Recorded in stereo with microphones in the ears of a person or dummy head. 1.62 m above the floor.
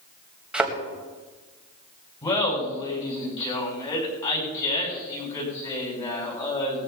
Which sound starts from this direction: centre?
A thud, at 0.5 s.